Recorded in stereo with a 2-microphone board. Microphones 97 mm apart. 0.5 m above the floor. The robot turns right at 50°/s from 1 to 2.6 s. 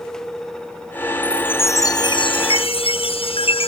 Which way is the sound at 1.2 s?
10° left.